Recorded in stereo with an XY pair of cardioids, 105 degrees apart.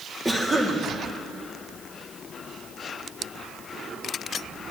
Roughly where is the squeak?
No squeak in this recording.